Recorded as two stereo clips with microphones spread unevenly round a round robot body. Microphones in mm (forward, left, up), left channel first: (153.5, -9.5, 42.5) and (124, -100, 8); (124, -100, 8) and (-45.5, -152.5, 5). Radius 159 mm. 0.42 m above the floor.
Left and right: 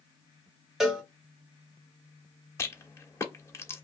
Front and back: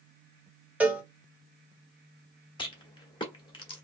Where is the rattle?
Straight ahead, 1.3 m.